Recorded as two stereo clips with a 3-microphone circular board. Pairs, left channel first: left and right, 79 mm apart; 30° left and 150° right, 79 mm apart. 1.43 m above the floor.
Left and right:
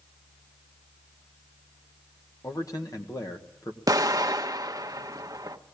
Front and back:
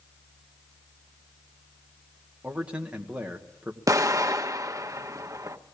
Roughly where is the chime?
I don't hear a chime.